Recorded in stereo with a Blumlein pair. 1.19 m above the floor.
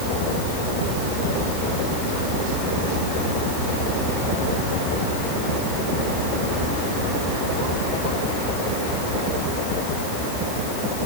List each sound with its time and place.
Only background noise.